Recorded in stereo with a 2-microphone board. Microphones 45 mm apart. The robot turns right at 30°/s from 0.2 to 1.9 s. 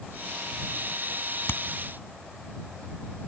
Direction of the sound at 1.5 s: 60° left (ahead or behind).